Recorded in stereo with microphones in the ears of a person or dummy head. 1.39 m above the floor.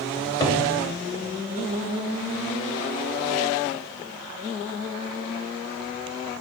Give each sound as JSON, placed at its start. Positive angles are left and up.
{"t": 0.2, "sound": "a cupboard door", "side_deg": 25, "distance_m": 2.0}